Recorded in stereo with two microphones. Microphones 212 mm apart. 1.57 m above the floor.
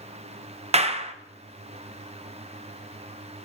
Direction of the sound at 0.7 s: 30° right (ahead or behind).